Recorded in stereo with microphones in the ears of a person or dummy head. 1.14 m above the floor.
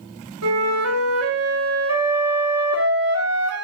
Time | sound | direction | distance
0.4 | a flute | 80° right | 1.6 m